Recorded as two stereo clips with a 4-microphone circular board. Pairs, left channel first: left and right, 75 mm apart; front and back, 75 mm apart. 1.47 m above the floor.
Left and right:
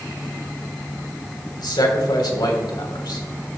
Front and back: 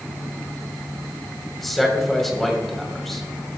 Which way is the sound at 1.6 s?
85° left.